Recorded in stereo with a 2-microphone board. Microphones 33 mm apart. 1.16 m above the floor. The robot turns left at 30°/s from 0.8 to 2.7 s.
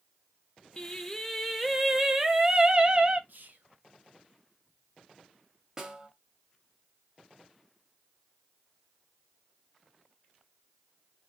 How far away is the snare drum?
About 1.6 m.